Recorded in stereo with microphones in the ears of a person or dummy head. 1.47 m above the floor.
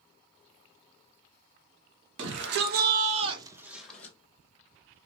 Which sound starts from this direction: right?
A shout, at 2.2 s.